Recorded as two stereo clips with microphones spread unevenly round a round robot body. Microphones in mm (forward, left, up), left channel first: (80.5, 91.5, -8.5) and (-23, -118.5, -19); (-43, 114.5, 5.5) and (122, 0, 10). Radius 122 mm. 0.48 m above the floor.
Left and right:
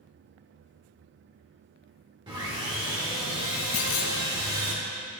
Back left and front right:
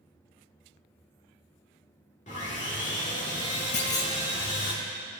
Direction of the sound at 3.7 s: 105° left.